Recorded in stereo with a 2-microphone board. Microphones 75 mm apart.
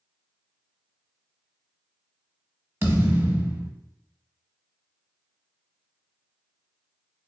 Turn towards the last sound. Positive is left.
turn(degrees=-30)  # may be behind; listen again after turning